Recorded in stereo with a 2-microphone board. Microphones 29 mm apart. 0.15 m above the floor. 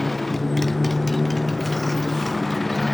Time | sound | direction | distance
0.0 | a motorcycle | 5° left (ahead or behind) | ?